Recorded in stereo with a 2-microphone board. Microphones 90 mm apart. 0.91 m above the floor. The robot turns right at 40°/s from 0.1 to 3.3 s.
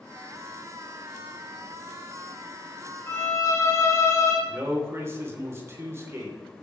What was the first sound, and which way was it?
A violin, 25° left (ahead or behind).